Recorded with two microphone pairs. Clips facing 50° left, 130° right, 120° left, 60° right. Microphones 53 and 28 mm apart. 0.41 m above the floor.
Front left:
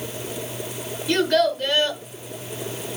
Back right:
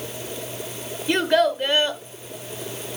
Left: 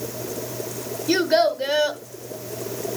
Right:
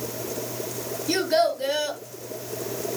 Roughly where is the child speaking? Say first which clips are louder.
Even, left 3 dB; behind.